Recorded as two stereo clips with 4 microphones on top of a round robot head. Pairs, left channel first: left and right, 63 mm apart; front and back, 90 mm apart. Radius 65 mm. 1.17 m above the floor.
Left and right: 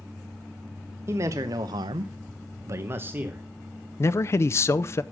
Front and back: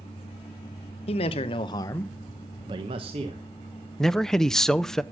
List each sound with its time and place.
1.1 s a man speaking: 30° right, 1.1 m; by 3.5 s 155° right, 1.2 m
4.0 s a man speaking: 80° left, 0.5 m